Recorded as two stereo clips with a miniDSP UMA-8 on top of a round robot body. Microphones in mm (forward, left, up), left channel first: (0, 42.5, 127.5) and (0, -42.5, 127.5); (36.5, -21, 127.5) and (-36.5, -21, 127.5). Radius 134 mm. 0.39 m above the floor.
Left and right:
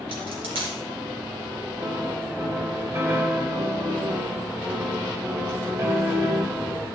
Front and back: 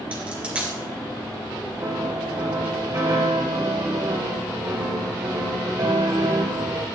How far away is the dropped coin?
About 2.5 m.